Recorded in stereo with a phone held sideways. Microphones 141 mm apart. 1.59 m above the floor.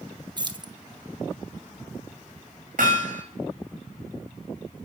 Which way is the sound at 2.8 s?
70° right (ahead or behind).